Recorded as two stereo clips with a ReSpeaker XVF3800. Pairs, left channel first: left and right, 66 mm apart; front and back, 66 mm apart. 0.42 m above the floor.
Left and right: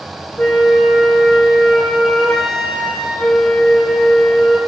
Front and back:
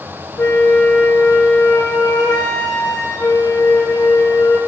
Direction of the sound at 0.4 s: 10° left.